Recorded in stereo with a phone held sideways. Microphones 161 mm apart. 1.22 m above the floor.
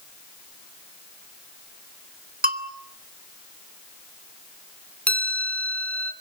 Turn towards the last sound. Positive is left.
turn(degrees=10)  # may be behind; listen again after turning